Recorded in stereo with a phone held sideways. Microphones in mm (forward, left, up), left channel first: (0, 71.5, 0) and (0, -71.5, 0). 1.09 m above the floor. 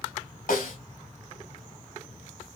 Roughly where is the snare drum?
Left.